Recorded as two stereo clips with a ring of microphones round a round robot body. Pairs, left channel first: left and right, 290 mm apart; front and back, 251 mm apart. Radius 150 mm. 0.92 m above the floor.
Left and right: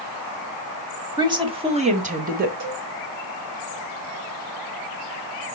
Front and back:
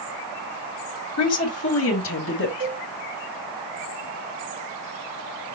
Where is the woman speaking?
15° right, 1.8 m; by 2.5 s 35° right, 1.3 m.